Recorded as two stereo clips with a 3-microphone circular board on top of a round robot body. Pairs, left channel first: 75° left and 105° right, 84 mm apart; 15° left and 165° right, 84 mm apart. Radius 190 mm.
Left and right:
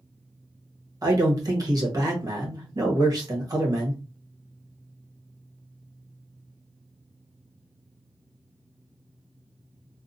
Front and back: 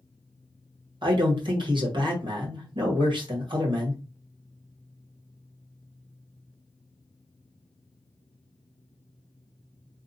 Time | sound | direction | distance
1.0 | a man speaking | 145° right | 1.2 m